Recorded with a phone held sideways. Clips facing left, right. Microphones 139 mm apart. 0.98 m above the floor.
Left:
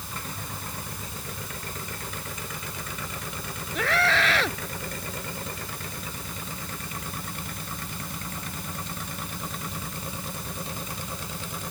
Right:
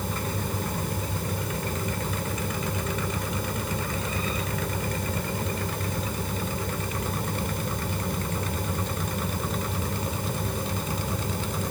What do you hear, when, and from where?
0.0 s a fan: 60° right (ahead or behind)
3.8 s a scream: 90° left